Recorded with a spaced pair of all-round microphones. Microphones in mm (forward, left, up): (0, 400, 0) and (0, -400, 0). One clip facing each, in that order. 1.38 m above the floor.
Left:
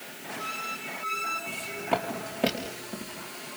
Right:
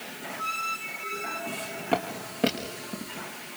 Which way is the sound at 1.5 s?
10° left (ahead or behind).